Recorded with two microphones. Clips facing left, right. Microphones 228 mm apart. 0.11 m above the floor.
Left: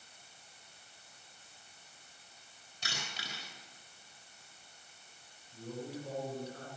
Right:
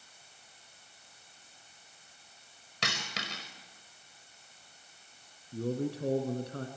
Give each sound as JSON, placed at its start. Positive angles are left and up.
{"t": 2.8, "sound": "a dropped coin", "side_deg": -80, "distance_m": 5.0}
{"t": 5.5, "sound": "a man speaking", "side_deg": -65, "distance_m": 4.0}